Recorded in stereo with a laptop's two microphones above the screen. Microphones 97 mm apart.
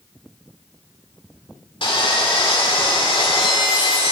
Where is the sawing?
60° left (ahead or behind), 2 m.